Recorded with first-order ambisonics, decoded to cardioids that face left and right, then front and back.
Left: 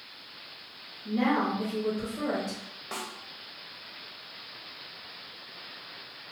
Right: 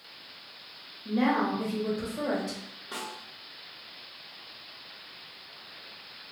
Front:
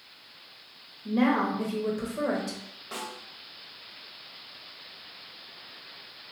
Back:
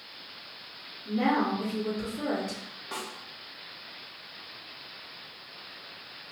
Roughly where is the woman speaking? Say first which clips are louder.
Even, front 1 dB; ahead.